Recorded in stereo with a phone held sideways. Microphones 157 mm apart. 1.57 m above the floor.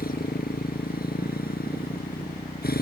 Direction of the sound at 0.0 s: 70° left (ahead or behind).